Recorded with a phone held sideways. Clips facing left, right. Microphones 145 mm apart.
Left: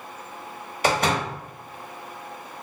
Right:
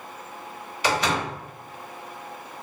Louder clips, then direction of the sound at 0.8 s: Left 2 dB; 45° left (ahead or behind).